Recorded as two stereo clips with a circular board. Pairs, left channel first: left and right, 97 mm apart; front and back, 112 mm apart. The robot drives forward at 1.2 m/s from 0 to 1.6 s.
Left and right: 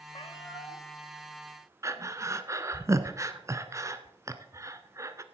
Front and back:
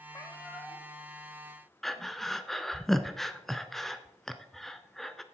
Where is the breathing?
85° right, 0.8 m.